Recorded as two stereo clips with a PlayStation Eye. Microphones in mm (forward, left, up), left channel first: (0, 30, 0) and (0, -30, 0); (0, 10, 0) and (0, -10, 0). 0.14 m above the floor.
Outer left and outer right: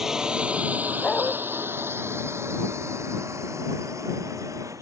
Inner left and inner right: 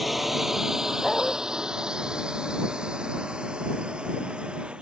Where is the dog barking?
20° left (ahead or behind).